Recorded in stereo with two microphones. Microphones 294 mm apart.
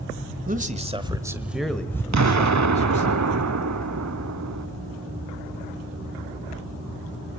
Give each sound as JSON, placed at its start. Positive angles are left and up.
{"t": 0.5, "sound": "a man speaking", "side_deg": -30, "distance_m": 1.4}
{"t": 2.1, "sound": "an explosion", "side_deg": -65, "distance_m": 0.6}